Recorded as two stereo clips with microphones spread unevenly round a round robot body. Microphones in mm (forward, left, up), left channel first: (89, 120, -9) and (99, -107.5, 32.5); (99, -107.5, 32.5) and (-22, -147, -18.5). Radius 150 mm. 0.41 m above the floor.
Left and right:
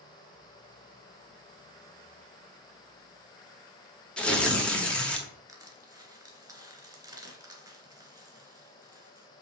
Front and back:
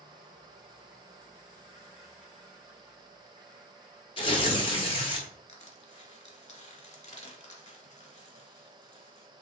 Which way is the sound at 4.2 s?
55° left.